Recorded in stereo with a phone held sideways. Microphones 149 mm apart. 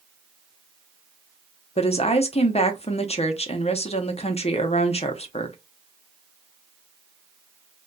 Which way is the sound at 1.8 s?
45° left (ahead or behind).